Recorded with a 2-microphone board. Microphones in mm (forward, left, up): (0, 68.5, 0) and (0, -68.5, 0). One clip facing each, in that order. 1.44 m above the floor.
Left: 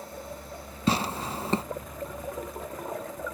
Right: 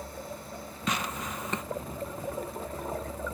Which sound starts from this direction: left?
Tearing paper, at 0.9 s.